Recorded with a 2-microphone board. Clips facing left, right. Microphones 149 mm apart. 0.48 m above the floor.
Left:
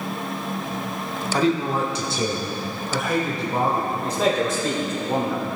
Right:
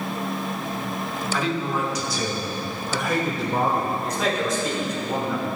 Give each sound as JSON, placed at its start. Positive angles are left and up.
{"t": 1.3, "sound": "a man speaking", "side_deg": 40, "distance_m": 1.0}
{"t": 4.0, "sound": "a man speaking", "side_deg": 30, "distance_m": 1.9}